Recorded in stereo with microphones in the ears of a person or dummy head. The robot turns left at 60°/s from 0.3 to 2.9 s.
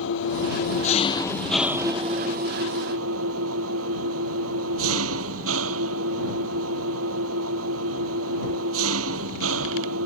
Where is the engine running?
80° left; by 10.1 s 75° right.